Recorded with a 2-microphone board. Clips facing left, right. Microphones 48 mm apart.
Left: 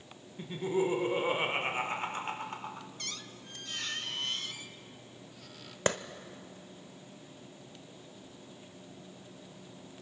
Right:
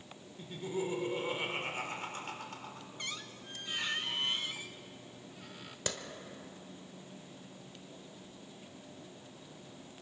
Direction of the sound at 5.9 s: 45° left (ahead or behind).